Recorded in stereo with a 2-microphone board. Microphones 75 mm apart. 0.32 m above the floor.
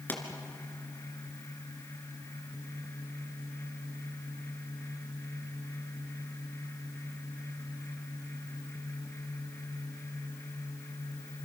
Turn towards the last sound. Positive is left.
turn(degrees=25)  # may be behind; listen again after turning